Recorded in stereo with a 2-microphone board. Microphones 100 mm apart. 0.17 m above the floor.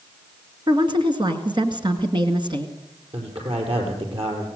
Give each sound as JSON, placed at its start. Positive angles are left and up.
{"t": 0.7, "sound": "a woman speaking", "side_deg": -50, "distance_m": 1.9}
{"t": 3.1, "sound": "a man speaking", "side_deg": -70, "distance_m": 5.0}